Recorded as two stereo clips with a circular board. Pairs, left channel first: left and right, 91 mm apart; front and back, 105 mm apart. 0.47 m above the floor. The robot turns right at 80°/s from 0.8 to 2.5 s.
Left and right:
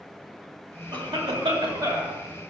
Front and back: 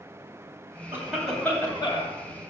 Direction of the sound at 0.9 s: 115° right.